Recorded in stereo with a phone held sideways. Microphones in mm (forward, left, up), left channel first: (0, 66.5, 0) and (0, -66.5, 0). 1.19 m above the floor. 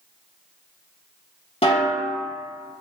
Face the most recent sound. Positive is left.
turn(degrees=50)  # may be behind; listen again after turning